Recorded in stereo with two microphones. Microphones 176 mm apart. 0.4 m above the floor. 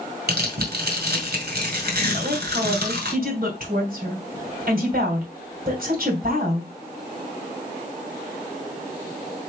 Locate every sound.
0.3 s tearing paper: 65° right (ahead or behind), 2.5 m
2.1 s a woman speaking: 55° right (ahead or behind), 2.5 m